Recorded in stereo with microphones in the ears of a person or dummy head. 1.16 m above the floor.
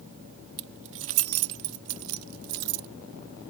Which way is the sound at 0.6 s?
60° right (ahead or behind).